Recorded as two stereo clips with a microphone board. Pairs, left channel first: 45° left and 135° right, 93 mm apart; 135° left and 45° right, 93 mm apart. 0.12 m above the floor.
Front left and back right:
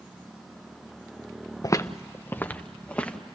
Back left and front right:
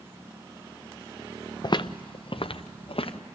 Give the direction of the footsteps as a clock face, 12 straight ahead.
9 o'clock.